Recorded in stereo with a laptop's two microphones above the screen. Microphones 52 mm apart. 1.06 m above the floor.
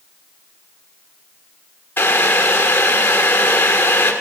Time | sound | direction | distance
2.0 | boiling | 40° left (ahead or behind) | 1.5 m